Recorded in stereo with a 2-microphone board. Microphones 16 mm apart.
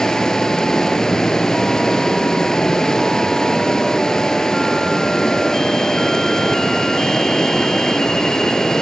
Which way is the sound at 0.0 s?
50° left (ahead or behind).